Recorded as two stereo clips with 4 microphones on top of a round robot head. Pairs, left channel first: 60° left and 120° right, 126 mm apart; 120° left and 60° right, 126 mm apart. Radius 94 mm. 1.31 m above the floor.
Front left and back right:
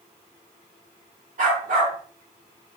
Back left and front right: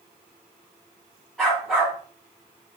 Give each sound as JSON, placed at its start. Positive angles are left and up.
{"t": 1.4, "sound": "a dog barking", "azimuth_deg": -150, "distance_m": 5.0}